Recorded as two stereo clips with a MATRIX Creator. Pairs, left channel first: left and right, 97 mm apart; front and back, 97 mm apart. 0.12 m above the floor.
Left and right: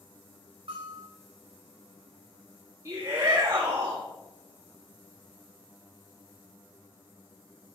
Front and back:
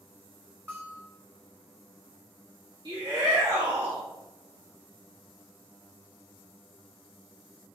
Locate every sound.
0.7 s a bell: 115° right, 4.5 m
2.9 s a shout: 145° right, 3 m